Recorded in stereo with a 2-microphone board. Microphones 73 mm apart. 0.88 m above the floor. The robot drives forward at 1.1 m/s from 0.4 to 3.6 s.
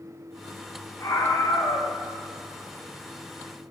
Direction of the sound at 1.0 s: 55° left (ahead or behind).